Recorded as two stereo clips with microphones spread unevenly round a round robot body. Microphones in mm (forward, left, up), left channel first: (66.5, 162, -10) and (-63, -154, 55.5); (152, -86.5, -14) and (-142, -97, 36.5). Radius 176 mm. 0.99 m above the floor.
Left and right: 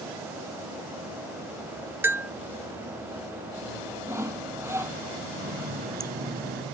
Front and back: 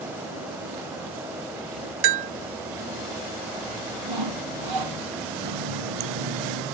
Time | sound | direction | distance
2.0 | a bell | 165° left | ?
4.1 | sawing | 165° left | ?
5.4 | a running tap | 175° right | ?